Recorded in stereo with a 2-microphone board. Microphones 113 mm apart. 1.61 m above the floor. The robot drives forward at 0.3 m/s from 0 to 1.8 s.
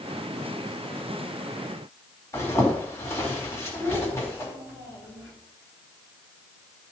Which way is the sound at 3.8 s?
25° right (ahead or behind).